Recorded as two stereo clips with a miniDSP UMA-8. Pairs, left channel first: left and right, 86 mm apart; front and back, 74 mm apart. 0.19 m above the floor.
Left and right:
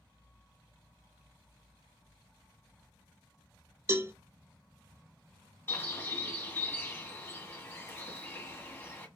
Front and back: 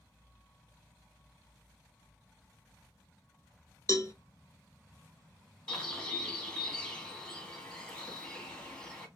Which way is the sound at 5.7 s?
65° left.